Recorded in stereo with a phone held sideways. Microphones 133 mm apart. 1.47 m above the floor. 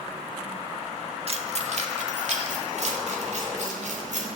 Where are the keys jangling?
50° right (ahead or behind), 1.4 m; by 4.4 s 65° right (ahead or behind), 5 m.